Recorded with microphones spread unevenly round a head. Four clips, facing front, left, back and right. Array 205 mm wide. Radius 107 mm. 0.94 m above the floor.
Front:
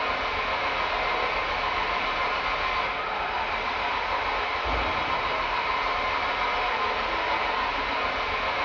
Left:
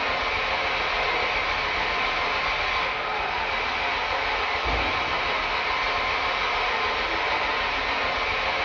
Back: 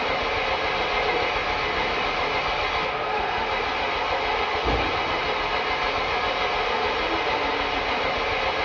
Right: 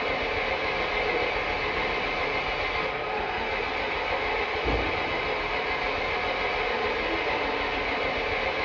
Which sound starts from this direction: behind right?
An engine running, at 0.0 s.